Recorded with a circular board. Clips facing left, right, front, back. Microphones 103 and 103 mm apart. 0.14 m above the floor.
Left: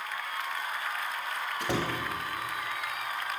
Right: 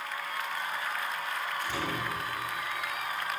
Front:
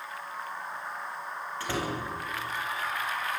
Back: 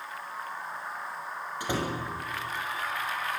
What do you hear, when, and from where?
1.6 s a door slam: 105° left, 5 m